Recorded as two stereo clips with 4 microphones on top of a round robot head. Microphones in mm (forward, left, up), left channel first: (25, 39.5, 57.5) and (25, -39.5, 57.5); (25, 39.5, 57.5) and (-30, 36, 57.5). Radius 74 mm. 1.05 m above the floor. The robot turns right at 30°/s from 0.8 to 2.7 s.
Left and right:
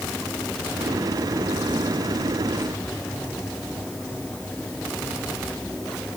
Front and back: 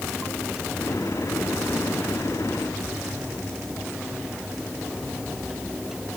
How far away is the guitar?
No guitar in this recording.